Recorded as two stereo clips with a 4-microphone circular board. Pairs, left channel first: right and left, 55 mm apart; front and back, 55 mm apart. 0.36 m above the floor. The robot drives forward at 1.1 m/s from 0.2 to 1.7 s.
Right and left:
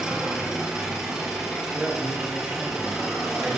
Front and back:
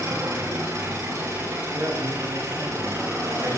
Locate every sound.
0.0 s an engine running: 165° left, 7 m
1.7 s a man speaking: 160° left, 5.5 m